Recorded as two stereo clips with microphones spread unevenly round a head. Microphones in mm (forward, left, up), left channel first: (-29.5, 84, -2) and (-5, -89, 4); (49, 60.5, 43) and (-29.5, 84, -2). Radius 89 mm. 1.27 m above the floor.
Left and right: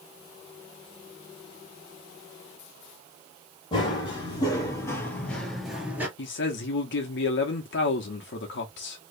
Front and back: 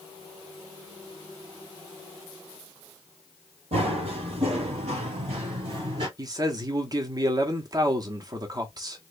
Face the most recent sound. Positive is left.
turn(degrees=120)